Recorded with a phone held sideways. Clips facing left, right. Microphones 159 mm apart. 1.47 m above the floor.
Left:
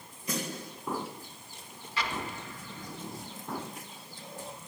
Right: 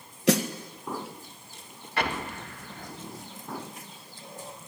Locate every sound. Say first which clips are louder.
0.3 s a snare drum: right 12 dB; 80° right, 1.7 m
2.0 s an explosion: right 5 dB; 60° right (ahead or behind), 1.6 m